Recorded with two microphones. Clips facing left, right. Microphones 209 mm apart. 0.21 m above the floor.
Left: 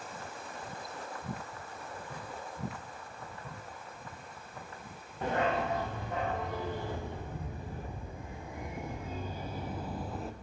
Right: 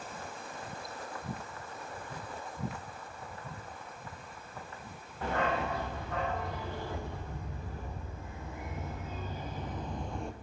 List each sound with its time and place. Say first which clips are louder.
5.2 s a dog barking: left 1 dB; 20° left (ahead or behind), 4.5 m; by 10.3 s centre (ahead or behind), 1.0 m